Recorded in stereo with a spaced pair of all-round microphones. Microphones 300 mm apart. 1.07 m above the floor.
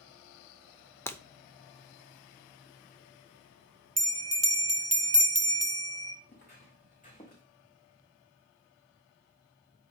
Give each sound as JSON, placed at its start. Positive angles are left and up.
{"t": 1.1, "sound": "breaking glass", "side_deg": 10, "distance_m": 0.7}
{"t": 4.0, "sound": "a bell", "side_deg": -50, "distance_m": 0.8}
{"t": 6.3, "sound": "footsteps", "side_deg": 35, "distance_m": 4.0}